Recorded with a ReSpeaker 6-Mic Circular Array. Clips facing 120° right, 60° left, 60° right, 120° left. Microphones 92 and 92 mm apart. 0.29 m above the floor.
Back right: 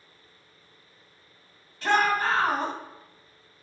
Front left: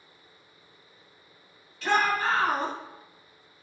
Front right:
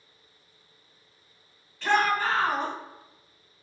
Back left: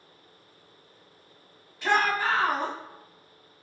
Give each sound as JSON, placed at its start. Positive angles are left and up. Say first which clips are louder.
{"t": 1.8, "sound": "a shout", "louder": "back right 2 dB, front right 1 dB", "azimuth_deg": -165, "distance_m": 1.9}